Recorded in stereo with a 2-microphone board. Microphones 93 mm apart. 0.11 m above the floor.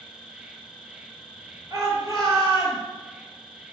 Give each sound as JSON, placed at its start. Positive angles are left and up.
{"t": 0.0, "sound": "an insect", "side_deg": -5, "distance_m": 0.9}
{"t": 1.7, "sound": "a shout", "side_deg": -45, "distance_m": 2.0}